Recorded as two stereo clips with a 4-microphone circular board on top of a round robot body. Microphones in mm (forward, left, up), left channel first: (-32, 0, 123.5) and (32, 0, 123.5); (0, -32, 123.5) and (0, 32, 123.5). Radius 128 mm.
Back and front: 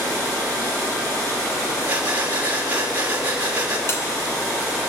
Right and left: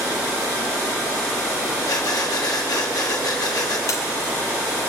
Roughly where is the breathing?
Ahead right.